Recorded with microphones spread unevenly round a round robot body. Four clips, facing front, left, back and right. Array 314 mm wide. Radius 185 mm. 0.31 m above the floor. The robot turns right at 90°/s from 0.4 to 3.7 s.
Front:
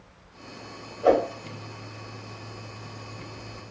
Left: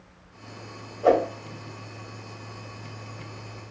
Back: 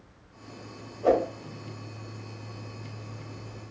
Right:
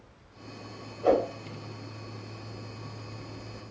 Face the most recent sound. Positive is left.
turn(degrees=-50)